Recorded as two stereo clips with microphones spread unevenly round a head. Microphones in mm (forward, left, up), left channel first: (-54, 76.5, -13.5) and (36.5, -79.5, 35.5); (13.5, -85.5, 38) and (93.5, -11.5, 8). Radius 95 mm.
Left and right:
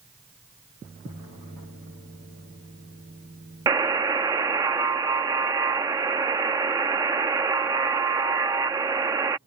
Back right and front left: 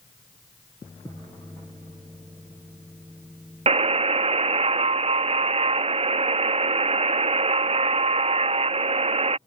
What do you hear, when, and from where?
3.7 s a buzzer: 15° left